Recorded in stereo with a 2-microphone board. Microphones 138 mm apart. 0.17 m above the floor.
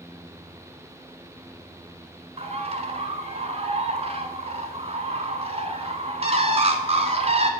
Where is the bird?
50° right (ahead or behind), 0.7 m.